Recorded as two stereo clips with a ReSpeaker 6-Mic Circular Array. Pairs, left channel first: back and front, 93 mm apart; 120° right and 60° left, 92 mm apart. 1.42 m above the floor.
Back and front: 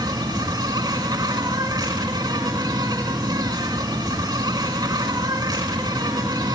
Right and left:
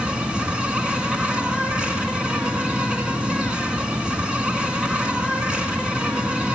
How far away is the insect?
About 2 m.